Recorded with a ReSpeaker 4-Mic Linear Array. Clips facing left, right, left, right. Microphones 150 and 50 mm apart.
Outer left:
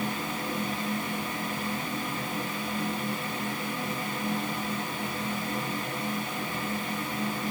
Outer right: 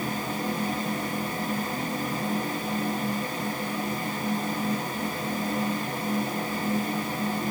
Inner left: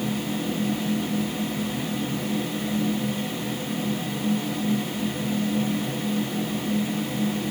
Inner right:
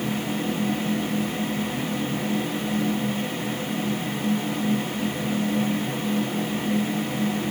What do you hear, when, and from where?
Only background noise.